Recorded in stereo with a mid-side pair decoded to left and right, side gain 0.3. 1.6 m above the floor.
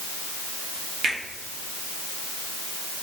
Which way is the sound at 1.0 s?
65° right.